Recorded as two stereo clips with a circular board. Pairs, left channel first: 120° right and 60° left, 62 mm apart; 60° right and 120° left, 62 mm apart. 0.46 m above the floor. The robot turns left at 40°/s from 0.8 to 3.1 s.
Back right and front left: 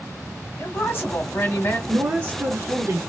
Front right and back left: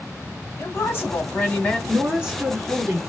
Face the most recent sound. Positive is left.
turn(degrees=30)